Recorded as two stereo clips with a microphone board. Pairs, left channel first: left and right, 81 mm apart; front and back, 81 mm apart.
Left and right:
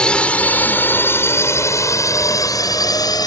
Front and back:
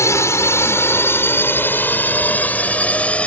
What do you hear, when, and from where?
0.0 s a drone: 20° left; by 3.3 s 75° left